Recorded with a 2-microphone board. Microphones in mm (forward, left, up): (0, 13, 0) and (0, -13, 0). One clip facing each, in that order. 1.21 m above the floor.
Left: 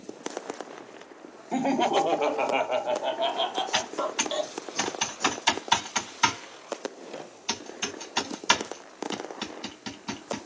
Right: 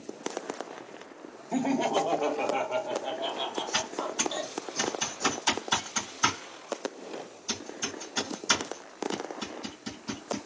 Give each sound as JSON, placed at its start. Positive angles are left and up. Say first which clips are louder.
{"t": 1.5, "sound": "laughter", "louder": "left 3 dB", "side_deg": 20, "distance_m": 0.7}
{"t": 3.7, "sound": "typing on a keyboard", "louder": "left 3 dB", "side_deg": 50, "distance_m": 2.0}